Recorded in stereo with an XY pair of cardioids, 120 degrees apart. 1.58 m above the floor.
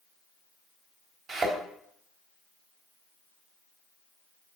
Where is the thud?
50° right, 3.5 m.